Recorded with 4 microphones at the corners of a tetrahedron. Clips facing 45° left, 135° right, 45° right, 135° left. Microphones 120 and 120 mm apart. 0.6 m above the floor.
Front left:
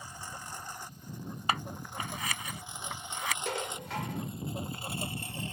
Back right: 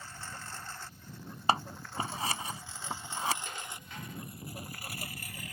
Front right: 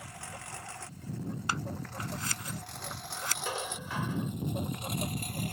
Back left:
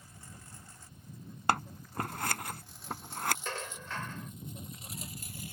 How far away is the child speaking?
No child speaking in this recording.